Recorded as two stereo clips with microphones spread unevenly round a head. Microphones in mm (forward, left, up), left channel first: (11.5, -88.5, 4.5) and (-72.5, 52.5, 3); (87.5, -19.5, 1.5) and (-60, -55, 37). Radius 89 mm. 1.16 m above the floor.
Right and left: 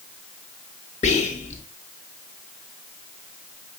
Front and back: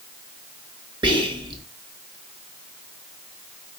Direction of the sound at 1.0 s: 105° right.